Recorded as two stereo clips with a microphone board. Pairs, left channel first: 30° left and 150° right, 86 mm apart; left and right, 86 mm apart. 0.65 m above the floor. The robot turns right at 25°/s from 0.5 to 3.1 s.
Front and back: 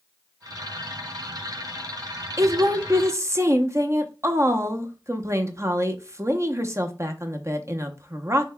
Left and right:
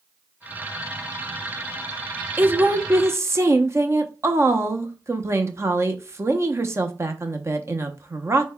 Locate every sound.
2.4 s a woman speaking: 145° right, 0.6 m; by 8.5 s 125° right, 0.6 m